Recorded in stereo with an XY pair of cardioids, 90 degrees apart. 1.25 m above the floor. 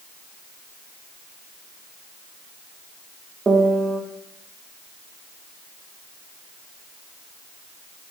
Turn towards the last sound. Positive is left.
turn(degrees=-40)